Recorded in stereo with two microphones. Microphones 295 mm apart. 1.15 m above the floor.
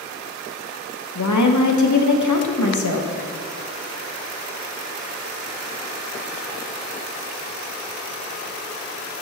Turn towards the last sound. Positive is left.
turn(degrees=75)  # may be behind; listen again after turning